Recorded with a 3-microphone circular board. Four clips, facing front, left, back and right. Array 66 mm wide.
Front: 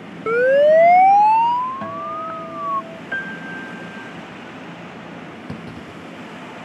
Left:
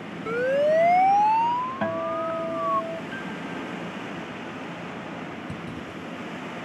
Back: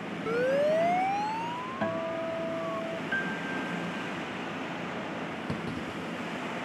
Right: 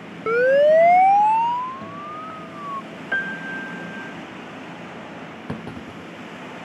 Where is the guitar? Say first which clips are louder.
Left 6 dB, front 4 dB; 90° left.